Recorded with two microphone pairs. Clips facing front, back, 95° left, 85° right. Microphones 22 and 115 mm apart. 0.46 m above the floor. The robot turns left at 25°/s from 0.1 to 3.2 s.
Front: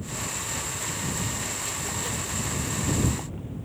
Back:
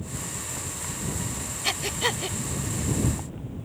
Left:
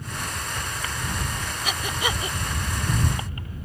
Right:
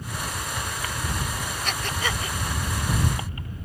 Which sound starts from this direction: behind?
Breathing, at 1.6 s.